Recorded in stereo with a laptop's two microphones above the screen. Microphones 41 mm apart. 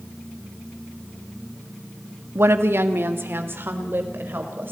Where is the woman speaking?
75° right (ahead or behind), 1.2 m; by 4.7 s 60° right (ahead or behind), 4.5 m.